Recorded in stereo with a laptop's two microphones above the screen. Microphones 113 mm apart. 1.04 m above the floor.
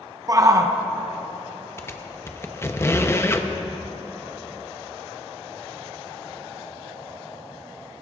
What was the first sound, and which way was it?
A shout, 30° right (ahead or behind).